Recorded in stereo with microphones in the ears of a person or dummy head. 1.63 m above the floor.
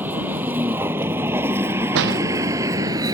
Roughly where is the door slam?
Right.